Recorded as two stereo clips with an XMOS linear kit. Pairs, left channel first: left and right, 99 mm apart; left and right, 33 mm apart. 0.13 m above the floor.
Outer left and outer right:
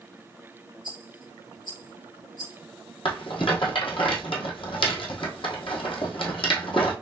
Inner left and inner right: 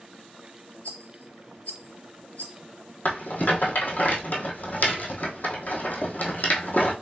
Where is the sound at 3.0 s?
60° left (ahead or behind), 1.0 m.